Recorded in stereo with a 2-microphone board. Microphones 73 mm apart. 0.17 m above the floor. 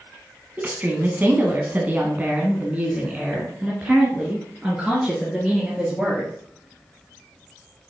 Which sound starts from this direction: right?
A woman speaking, at 0.6 s.